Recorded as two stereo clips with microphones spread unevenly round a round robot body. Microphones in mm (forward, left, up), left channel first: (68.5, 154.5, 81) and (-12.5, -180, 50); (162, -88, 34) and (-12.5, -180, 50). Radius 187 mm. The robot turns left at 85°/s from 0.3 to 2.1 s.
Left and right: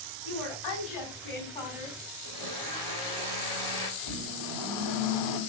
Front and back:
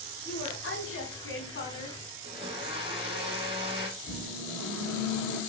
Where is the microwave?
105° left, 2.5 m.